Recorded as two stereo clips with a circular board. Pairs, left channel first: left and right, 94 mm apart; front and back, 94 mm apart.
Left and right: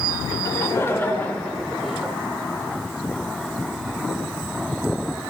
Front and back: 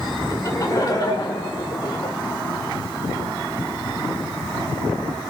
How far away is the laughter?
About 1.6 m.